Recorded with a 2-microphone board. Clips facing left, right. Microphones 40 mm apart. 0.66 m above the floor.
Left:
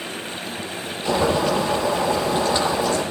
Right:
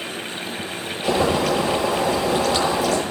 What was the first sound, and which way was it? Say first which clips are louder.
Boiling: even; 80° right.